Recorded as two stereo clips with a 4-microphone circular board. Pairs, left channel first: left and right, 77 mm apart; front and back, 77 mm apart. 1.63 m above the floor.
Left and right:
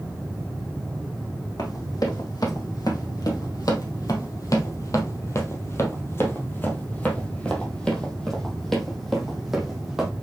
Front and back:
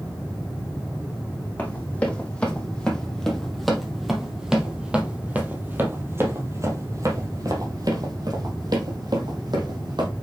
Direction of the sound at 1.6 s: 70° left.